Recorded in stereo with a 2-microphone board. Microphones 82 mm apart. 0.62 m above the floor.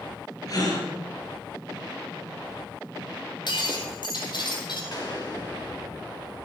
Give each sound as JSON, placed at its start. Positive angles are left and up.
{"t": 0.5, "sound": "a gasp", "side_deg": 45, "distance_m": 3.5}
{"t": 3.5, "sound": "breaking glass", "side_deg": 60, "distance_m": 2.5}
{"t": 4.9, "sound": "a gunshot", "side_deg": 50, "distance_m": 4.0}